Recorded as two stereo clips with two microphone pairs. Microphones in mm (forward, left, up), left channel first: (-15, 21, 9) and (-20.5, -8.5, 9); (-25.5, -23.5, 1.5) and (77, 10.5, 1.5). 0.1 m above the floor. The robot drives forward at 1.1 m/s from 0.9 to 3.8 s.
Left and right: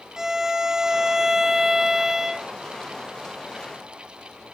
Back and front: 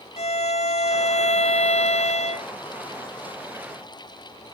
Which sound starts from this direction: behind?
A violin, at 0.2 s.